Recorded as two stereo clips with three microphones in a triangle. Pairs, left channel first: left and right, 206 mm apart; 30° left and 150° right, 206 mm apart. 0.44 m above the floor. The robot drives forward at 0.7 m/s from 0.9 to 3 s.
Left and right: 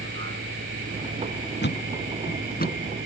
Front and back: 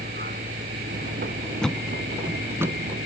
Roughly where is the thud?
Behind left.